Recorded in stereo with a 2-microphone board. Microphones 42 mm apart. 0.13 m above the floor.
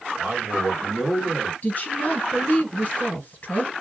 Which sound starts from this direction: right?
A man speaking, at 0.2 s.